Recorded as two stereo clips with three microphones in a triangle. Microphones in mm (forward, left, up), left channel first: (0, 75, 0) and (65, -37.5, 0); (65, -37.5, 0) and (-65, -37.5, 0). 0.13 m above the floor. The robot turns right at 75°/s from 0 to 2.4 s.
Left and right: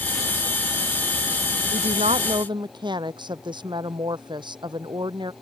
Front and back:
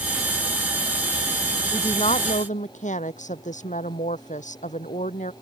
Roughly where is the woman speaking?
Ahead right.